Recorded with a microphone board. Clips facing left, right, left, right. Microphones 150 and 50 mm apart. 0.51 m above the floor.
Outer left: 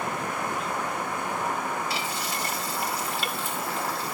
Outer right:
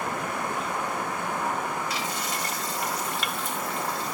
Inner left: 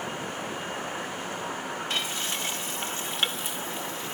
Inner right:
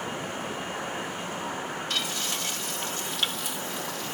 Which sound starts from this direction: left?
Frying, at 1.9 s.